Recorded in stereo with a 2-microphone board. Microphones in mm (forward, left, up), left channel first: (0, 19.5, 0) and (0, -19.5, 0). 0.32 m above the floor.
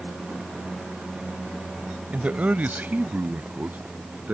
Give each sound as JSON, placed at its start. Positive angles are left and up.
{"t": 2.1, "sound": "a man speaking", "side_deg": -35}